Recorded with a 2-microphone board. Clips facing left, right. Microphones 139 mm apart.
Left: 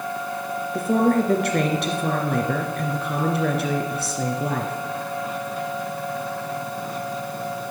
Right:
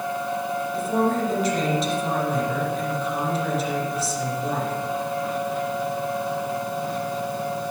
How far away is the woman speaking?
About 2.5 m.